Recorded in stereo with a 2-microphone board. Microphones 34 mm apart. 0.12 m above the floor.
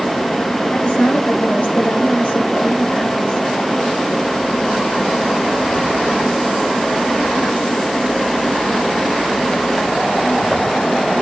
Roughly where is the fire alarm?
No fire alarm in this recording.